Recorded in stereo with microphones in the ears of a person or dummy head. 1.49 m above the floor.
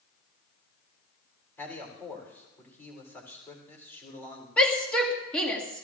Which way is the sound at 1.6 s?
5° left (ahead or behind).